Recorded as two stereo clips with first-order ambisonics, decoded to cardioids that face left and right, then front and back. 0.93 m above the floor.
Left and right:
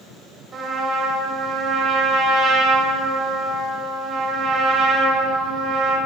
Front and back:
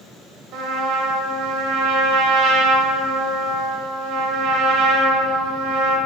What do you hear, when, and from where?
0.5 s a trumpet: 150° right, 1.3 m